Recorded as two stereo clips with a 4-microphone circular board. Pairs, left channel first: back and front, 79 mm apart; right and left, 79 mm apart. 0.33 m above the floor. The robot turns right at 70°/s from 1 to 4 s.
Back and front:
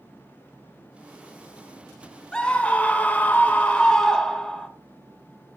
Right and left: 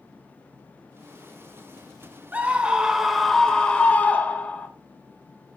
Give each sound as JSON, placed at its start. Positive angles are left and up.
{"t": 2.3, "sound": "a scream", "azimuth_deg": 125, "distance_m": 1.3}